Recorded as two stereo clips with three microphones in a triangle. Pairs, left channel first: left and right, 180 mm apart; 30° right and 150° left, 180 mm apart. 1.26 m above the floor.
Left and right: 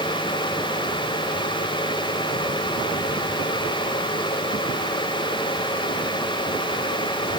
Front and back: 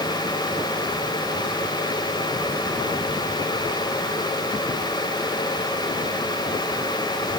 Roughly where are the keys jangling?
No keys jangling in this recording.